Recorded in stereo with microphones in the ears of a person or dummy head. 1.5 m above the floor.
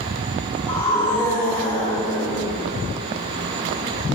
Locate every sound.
0.7 s a scream: 10° left (ahead or behind), 4 m